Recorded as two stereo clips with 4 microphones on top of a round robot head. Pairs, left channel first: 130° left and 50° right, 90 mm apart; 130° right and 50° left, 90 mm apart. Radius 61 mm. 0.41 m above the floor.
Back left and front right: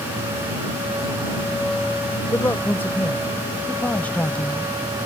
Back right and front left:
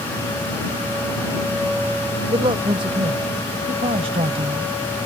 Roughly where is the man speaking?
Ahead left.